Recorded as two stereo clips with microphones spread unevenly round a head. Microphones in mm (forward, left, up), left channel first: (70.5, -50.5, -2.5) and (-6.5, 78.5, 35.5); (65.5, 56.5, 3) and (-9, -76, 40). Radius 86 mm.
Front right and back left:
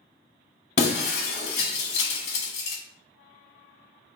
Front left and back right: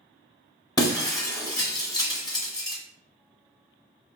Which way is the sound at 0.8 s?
15° right.